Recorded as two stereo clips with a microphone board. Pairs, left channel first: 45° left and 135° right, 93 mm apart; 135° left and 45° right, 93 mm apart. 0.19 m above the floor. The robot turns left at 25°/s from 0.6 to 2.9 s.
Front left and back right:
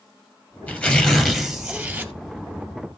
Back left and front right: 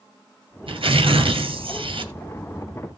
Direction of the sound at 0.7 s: 25° right.